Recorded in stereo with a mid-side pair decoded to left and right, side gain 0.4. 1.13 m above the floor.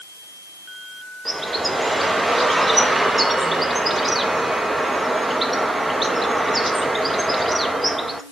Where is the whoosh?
No whoosh in this recording.